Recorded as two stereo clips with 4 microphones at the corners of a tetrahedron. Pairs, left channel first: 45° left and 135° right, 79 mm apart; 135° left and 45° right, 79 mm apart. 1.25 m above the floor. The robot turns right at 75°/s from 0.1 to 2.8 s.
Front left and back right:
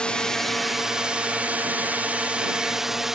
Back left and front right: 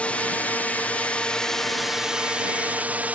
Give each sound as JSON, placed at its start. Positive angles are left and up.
{"t": 0.0, "sound": "a drone", "azimuth_deg": 100}